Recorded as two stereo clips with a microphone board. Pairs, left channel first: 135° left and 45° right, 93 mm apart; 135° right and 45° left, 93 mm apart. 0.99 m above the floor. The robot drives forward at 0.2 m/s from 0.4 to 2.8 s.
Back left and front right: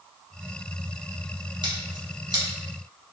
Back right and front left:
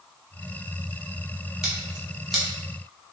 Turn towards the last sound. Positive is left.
turn(degrees=-50)